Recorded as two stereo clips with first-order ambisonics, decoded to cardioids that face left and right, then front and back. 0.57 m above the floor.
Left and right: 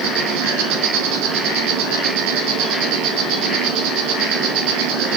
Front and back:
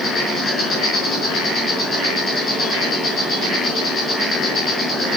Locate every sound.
0.0 s an insect: 65° right, 5 m